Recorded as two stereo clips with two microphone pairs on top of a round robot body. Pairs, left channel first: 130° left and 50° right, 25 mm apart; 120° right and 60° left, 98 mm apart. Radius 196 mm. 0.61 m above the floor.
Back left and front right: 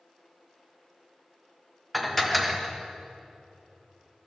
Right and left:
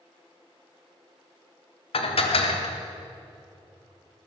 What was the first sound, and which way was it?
Dishes clattering, 140° right.